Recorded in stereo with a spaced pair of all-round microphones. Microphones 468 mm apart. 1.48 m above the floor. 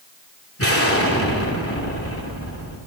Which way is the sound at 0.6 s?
30° left (ahead or behind).